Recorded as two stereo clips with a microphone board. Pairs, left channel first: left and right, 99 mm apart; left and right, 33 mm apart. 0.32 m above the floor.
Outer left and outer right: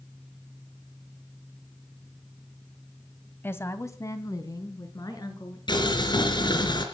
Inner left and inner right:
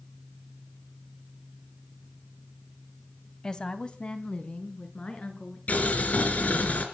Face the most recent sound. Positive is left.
turn(degrees=50)  # may be behind; listen again after turning